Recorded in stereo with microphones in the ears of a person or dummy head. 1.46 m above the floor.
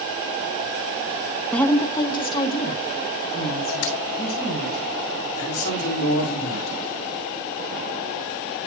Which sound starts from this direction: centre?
A woman speaking, at 1.5 s.